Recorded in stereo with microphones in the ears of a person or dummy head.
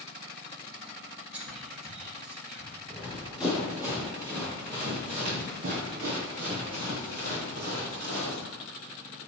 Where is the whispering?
5° right (ahead or behind), 1.9 m.